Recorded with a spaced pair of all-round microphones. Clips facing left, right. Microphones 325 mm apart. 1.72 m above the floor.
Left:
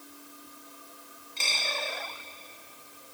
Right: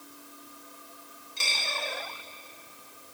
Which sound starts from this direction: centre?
A dropped coin, at 1.4 s.